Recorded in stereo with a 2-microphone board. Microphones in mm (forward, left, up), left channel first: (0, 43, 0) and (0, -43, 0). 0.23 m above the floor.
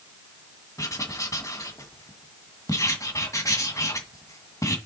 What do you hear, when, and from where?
0.8 s writing: 40° left (ahead or behind), 2.0 m